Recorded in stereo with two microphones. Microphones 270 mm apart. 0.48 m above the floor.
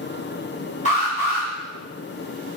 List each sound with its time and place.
0.8 s an alarm: 25° left (ahead or behind), 4 m